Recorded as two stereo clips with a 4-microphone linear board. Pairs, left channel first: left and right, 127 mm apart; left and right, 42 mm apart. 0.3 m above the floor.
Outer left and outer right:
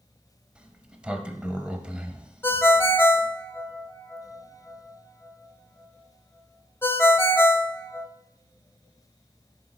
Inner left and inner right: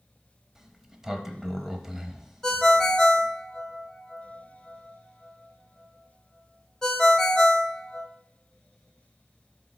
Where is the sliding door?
10° right (ahead or behind), 0.7 m.